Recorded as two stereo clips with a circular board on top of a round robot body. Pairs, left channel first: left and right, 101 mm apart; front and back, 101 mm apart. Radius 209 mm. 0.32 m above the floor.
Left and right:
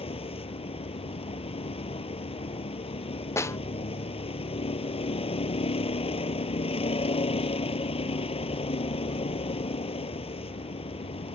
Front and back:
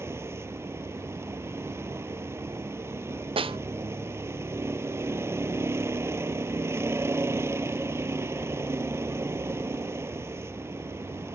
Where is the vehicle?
115° left.